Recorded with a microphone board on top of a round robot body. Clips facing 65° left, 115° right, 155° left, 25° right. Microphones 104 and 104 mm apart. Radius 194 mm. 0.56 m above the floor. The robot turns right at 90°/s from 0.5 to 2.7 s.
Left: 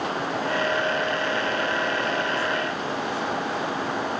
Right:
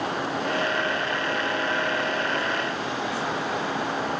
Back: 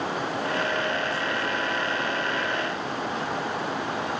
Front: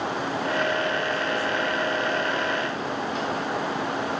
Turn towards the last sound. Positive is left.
No sound to turn to.